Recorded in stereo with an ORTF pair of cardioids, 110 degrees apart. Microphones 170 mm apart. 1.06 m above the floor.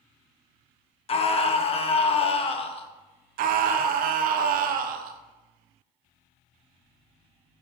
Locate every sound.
1.1 s a scream: 35° left, 1.0 m
3.4 s a scream: 60° right, 0.7 m